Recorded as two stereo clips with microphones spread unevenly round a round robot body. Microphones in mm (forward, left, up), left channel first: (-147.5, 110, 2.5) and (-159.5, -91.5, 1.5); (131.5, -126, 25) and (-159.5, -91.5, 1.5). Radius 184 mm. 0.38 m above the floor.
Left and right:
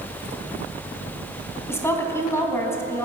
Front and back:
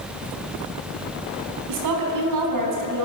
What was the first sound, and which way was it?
A woman speaking, 165° left.